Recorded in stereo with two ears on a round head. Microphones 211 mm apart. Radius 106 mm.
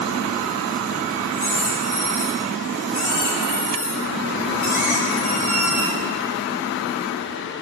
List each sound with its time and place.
1.3 s a squeak: 40° left (ahead or behind), 4 m